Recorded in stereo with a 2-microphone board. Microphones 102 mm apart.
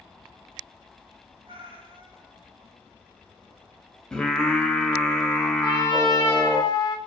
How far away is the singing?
About 0.5 m.